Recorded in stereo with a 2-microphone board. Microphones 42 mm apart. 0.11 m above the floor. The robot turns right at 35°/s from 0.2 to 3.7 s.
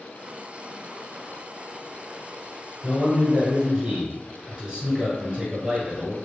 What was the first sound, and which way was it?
A man speaking, 15° right (ahead or behind).